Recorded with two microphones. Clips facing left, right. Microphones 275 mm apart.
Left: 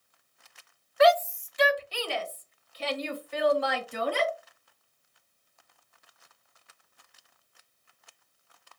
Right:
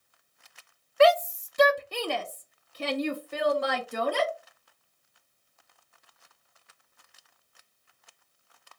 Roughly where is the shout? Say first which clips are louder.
Right 1 dB; right.